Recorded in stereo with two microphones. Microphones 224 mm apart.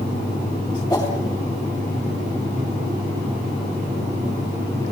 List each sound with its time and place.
0.9 s a whoosh: 15° left (ahead or behind), 7.5 m